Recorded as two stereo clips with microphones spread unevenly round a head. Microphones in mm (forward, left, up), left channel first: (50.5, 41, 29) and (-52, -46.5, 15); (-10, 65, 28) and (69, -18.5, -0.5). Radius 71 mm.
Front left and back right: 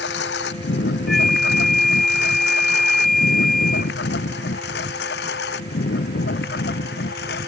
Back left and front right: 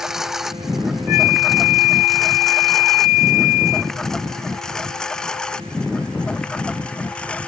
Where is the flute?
130° left.